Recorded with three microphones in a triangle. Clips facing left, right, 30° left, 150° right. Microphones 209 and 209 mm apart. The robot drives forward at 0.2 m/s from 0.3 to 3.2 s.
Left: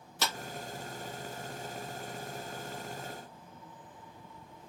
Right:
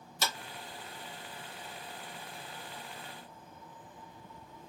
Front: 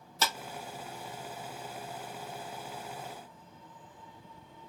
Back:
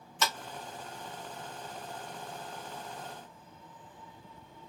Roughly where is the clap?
Left.